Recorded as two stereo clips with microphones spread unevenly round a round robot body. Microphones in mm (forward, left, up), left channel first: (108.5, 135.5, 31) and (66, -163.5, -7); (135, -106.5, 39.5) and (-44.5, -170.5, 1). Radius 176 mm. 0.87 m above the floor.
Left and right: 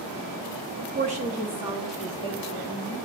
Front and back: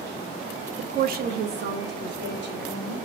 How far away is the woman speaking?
About 0.6 m.